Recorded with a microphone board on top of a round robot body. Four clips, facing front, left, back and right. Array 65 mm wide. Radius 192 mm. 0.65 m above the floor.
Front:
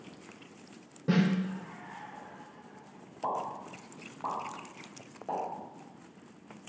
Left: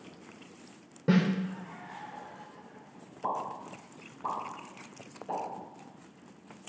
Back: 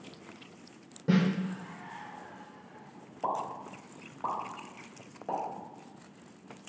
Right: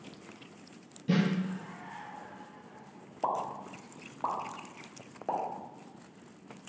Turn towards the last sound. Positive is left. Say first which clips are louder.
# right 1 dB, back 1 dB
turn(degrees=-100)